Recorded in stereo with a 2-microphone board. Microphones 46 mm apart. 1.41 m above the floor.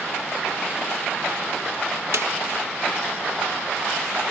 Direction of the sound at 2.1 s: 75° right (ahead or behind).